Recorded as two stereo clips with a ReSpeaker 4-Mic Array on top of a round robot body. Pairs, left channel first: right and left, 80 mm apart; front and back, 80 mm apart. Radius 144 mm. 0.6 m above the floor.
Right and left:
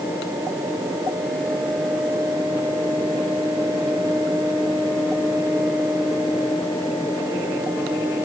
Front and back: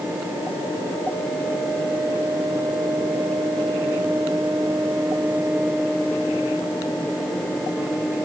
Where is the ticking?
I don't hear ticking.